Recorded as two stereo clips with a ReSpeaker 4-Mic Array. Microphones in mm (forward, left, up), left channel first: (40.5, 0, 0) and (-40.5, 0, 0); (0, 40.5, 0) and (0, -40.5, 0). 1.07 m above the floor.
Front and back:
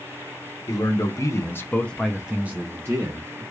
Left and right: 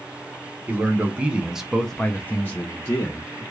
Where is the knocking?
I don't hear knocking.